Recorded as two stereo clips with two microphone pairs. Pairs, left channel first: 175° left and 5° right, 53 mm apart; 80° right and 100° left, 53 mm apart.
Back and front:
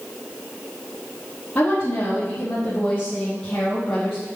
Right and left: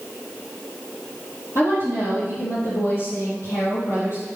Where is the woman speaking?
115° right, 4 m; by 4.2 s 100° right, 5 m.